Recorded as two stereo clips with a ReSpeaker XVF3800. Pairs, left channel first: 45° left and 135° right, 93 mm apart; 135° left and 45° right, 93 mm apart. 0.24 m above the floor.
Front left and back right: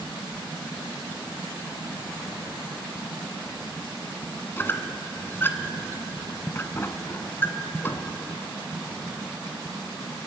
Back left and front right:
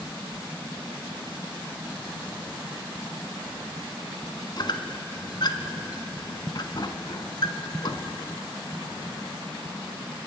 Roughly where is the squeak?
Left.